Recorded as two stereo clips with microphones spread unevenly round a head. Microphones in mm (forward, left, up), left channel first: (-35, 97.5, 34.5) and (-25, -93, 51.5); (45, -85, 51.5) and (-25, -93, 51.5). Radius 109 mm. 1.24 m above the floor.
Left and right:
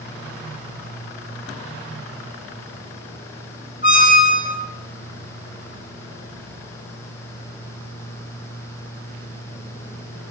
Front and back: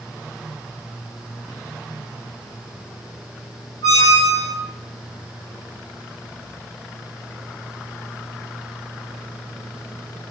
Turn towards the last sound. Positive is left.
turn(degrees=50)